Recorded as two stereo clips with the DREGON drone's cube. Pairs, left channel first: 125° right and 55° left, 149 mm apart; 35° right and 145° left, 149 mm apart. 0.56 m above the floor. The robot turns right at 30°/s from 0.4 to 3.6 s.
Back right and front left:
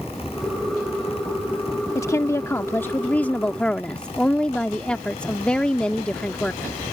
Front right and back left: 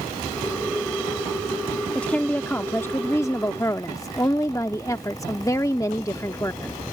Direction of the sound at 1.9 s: 105° right.